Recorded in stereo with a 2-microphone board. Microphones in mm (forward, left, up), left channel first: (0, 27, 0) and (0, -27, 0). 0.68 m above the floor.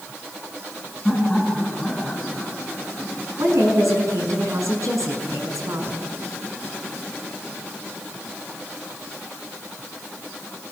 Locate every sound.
1.1 s laughter: centre (ahead or behind), 8.5 m; by 3.5 s 5° left (ahead or behind), 6 m
3.4 s a woman speaking: 75° right (ahead or behind), 6 m